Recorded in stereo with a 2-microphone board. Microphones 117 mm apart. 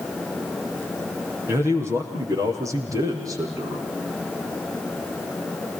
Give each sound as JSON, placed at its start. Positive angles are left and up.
{"t": 1.5, "sound": "a man speaking", "side_deg": -20, "distance_m": 5.5}